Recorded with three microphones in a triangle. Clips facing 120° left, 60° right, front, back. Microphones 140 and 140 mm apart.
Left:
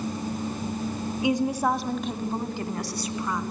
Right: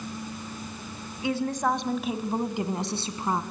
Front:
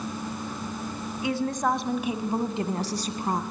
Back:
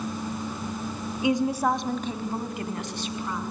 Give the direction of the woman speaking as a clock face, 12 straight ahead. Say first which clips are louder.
Left 2 dB, back 3 dB; 7 o'clock.